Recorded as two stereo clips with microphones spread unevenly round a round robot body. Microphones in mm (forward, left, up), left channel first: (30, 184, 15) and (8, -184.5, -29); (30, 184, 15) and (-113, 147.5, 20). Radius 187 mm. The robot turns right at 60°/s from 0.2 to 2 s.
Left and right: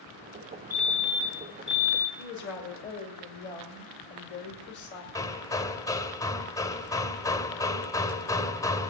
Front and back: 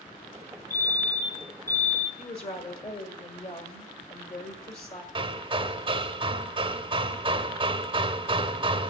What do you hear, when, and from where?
0.7 s a fire alarm: 170° left, 2 m; by 2.1 s 110° right, 2 m
2.2 s a woman speaking: 30° left, 1.9 m
5.2 s hammering: 175° left, 0.7 m